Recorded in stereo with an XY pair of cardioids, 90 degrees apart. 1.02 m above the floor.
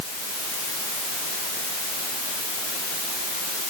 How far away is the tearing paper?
No tearing paper in this recording.